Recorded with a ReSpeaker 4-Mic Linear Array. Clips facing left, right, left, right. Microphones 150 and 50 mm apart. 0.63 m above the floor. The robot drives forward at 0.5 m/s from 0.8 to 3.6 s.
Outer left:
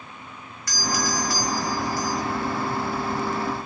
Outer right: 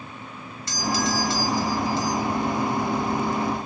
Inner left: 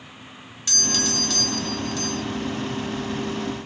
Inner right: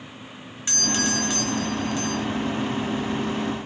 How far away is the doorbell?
About 1.2 m.